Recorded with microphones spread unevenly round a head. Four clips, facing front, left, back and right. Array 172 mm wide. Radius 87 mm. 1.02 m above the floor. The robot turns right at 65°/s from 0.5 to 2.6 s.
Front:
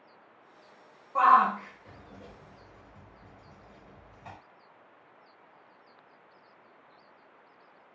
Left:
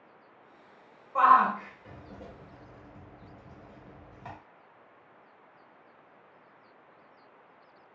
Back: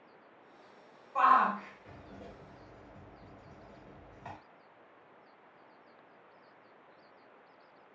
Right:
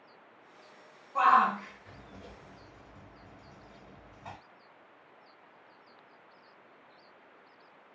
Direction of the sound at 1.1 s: 20° left.